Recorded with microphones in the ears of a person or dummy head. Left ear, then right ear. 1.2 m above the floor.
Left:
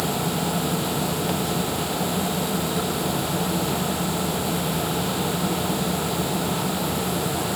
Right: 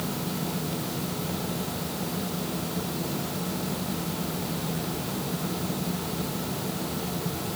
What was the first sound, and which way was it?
Only background noise.